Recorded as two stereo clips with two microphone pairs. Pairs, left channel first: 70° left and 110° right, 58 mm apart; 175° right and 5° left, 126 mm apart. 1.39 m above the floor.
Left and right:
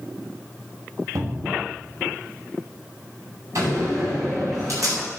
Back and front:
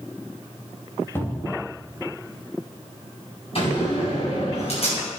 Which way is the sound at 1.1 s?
105° right.